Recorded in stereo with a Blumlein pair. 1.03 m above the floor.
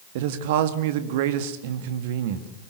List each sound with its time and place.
0.1 s a man speaking: 50° right, 2 m